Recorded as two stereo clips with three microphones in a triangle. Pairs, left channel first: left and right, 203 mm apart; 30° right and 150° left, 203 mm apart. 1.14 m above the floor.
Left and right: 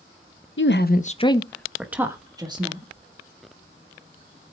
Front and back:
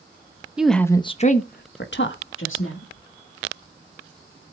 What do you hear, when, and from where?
0.6 s a woman speaking: 65° left, 0.9 m; by 2.9 s 25° right, 2 m